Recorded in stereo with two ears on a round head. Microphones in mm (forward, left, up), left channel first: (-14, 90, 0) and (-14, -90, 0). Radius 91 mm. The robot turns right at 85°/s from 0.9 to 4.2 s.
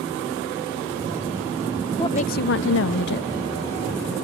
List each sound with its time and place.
2.0 s a woman speaking: 20° left; by 3.3 s 130° left